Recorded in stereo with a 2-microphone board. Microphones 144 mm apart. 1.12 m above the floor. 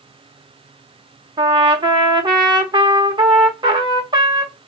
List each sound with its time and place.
1.4 s a trumpet: 30° right (ahead or behind), 1.1 m